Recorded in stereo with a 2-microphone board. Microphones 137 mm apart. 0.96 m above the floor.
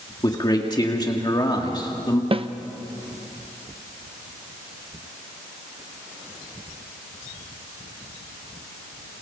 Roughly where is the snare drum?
Right.